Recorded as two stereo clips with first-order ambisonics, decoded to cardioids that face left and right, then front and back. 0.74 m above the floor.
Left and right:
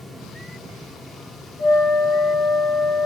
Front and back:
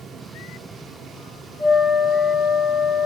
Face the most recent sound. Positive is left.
turn(degrees=90)